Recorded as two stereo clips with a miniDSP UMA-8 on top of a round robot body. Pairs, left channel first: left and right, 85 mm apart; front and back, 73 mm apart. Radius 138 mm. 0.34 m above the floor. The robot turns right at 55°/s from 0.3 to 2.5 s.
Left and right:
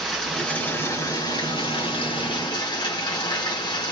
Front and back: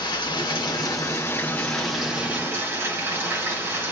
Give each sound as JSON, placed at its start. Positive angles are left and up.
{"t": 0.0, "sound": "running water", "azimuth_deg": 5, "distance_m": 3.0}